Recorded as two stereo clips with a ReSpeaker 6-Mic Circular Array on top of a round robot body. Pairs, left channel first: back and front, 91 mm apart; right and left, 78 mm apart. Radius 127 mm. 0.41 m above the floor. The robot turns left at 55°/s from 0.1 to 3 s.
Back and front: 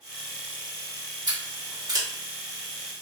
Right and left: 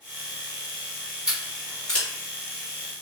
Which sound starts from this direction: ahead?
Scissors, at 1.3 s.